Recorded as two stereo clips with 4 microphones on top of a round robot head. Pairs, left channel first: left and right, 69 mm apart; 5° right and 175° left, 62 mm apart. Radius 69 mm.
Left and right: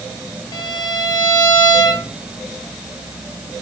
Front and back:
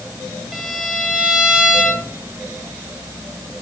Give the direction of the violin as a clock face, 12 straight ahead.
9 o'clock.